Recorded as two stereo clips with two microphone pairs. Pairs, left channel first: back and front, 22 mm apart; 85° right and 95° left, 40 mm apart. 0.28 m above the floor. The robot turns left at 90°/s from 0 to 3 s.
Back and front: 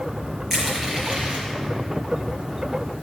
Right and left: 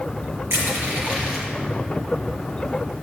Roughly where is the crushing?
Left.